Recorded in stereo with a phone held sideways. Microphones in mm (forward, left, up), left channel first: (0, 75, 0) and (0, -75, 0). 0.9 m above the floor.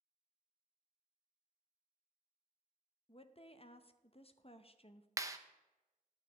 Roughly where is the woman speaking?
Left.